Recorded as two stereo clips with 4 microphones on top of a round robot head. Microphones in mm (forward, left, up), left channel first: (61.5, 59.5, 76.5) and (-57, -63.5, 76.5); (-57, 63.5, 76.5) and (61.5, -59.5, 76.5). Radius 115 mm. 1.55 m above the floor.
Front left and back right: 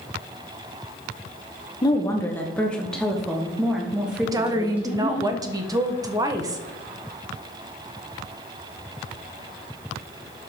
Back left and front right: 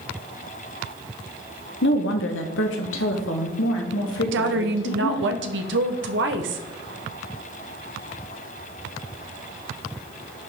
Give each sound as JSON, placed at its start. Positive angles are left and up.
{"t": 1.8, "sound": "a woman speaking", "azimuth_deg": 115, "distance_m": 1.0}
{"t": 4.3, "sound": "a woman speaking", "azimuth_deg": -65, "distance_m": 1.1}